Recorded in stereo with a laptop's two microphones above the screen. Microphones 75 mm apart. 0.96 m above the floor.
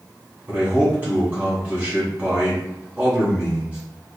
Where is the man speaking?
25° right (ahead or behind), 1.5 m.